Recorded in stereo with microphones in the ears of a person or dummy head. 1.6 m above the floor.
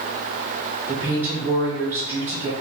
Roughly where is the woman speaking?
Right.